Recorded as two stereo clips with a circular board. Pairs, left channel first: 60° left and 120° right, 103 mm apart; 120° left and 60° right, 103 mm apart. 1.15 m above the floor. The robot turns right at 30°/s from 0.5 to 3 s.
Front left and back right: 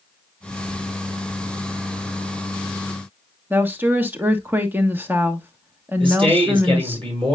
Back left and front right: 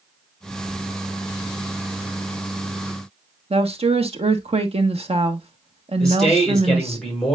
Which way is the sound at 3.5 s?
50° right.